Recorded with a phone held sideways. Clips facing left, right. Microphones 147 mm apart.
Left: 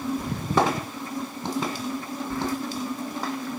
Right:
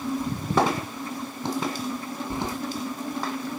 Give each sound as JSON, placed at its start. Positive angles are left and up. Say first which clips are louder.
{"t": 0.2, "sound": "keys jangling", "louder": "right 2 dB", "side_deg": 70, "distance_m": 1.5}
{"t": 2.3, "sound": "keys jangling", "louder": "left 3 dB", "side_deg": -20, "distance_m": 0.7}